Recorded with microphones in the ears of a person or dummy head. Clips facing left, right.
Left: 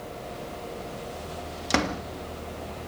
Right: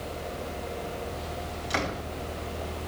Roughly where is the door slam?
Left.